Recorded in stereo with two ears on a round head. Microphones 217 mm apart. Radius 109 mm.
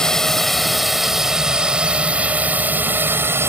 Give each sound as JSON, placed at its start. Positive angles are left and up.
{"t": 0.0, "sound": "a drone", "side_deg": 0}